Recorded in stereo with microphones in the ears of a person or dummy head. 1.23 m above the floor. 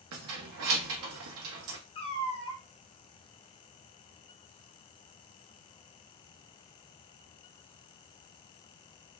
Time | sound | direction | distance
0.1 | keys jangling | 75° right (ahead or behind) | 0.6 m
1.9 | a cat meowing | 25° left (ahead or behind) | 0.6 m